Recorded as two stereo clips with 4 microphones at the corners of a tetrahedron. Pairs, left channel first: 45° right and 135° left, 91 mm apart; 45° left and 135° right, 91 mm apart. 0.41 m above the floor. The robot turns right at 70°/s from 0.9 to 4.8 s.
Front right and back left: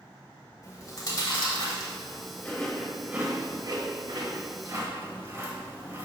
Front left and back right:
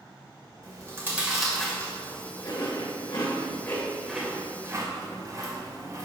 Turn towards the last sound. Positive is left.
turn(degrees=-170)